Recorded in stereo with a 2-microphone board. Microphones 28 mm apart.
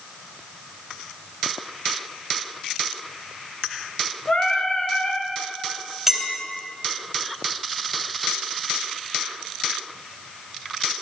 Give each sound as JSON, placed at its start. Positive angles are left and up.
{"t": 4.3, "sound": "singing", "side_deg": 40, "distance_m": 1.2}
{"t": 6.1, "sound": "a clink", "side_deg": -5, "distance_m": 3.5}